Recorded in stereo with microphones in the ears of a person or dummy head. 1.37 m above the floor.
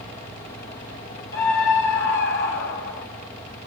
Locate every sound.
1.3 s a scream: 70° left (ahead or behind), 6 m